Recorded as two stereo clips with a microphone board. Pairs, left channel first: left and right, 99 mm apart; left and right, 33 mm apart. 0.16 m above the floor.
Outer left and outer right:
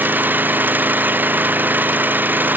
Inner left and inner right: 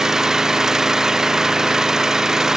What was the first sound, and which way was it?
An engine running, 20° right (ahead or behind).